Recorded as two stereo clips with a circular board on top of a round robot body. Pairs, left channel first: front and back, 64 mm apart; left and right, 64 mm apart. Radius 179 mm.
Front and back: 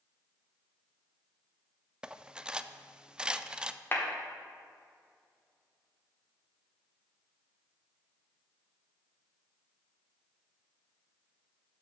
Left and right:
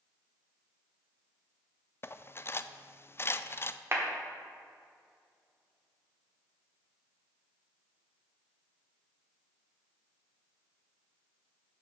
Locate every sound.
2.0 s cutlery clinking: 110° left, 0.5 m
3.9 s a clap: 45° right, 1.6 m